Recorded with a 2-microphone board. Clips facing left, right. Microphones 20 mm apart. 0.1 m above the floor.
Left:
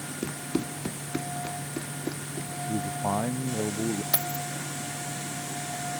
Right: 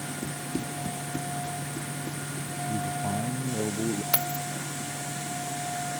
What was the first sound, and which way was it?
Running footsteps, 70° left (ahead or behind).